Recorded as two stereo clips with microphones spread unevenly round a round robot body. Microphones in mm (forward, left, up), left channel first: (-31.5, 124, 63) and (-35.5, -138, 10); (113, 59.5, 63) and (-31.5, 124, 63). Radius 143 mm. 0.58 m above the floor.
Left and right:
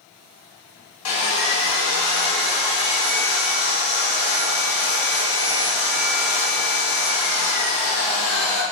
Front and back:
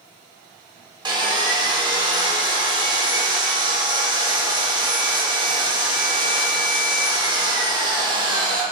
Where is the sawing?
90° left, 1.0 m.